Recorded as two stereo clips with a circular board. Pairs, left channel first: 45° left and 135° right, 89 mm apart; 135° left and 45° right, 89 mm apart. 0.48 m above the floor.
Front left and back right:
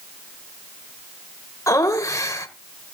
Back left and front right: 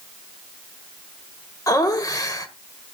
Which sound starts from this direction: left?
Laughter, at 1.7 s.